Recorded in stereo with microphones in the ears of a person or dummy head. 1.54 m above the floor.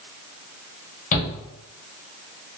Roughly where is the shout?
Left.